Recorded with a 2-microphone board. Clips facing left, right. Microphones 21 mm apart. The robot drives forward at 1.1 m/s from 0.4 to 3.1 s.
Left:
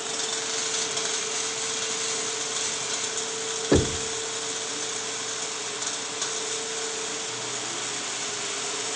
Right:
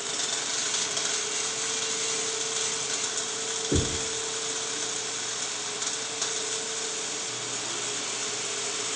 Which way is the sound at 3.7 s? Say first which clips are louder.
Left 6 dB; 70° left (ahead or behind).